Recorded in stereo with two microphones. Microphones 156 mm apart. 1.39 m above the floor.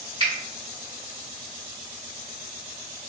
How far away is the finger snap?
About 1.1 m.